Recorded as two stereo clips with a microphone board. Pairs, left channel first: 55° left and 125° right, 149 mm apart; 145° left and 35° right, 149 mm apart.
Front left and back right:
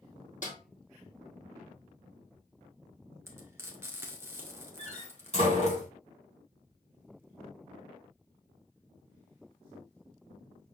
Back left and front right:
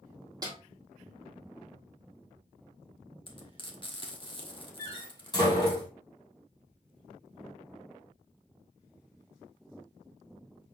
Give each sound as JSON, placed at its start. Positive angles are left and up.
{"t": 0.4, "sound": "a snare drum", "azimuth_deg": 30, "distance_m": 1.7}
{"t": 3.3, "sound": "frying", "azimuth_deg": 170, "distance_m": 1.2}
{"t": 4.8, "sound": "a door slam", "azimuth_deg": 85, "distance_m": 2.5}